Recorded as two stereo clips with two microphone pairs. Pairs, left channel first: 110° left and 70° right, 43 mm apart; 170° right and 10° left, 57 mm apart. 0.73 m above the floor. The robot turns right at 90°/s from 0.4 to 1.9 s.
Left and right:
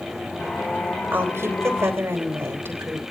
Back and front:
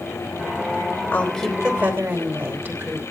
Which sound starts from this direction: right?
A woman speaking, at 1.1 s.